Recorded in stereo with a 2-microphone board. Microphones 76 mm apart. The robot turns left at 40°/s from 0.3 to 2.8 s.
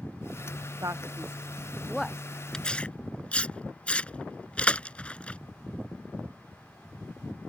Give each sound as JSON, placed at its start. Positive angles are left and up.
{"t": 0.8, "sound": "a man speaking", "side_deg": -50}
{"t": 2.5, "sound": "tearing paper", "side_deg": 5}